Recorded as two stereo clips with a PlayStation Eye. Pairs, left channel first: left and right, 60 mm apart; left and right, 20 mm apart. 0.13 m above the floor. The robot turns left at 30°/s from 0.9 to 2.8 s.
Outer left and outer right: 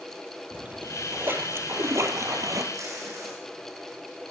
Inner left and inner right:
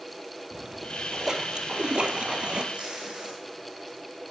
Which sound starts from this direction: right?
Tape being pulled, at 2.7 s.